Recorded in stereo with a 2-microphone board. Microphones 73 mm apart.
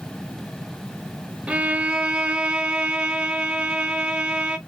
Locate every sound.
1.5 s a violin: 15° right (ahead or behind), 0.6 m